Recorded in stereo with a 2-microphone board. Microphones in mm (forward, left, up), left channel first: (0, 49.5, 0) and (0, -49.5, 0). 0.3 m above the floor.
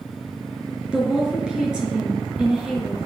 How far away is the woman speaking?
About 4 m.